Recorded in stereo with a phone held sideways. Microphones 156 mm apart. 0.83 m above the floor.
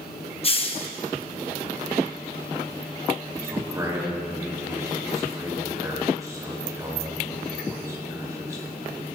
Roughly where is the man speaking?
Right.